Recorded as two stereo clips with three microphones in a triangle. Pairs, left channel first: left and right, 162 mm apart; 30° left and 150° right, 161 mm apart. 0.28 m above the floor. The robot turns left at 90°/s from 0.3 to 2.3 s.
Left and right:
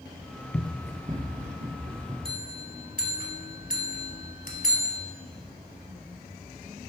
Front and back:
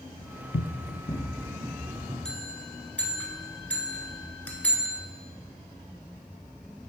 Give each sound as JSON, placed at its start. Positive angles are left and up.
{"t": 0.5, "sound": "running footsteps", "azimuth_deg": 25, "distance_m": 0.5}
{"t": 2.2, "sound": "a bell", "azimuth_deg": 115, "distance_m": 1.0}